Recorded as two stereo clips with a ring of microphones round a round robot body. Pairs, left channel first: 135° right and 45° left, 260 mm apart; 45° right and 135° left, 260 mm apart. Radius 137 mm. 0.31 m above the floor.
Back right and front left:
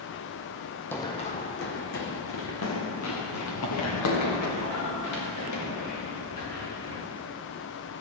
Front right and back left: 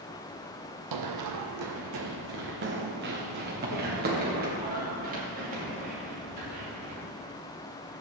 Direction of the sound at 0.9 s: 140° left.